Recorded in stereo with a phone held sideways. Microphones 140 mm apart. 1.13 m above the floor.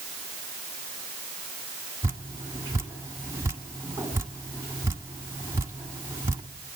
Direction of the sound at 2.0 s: 20° right (ahead or behind).